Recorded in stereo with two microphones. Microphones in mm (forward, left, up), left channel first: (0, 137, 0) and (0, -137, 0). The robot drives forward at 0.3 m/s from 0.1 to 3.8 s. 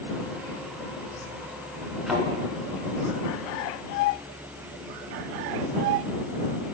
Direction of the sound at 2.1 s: Centre (ahead or behind).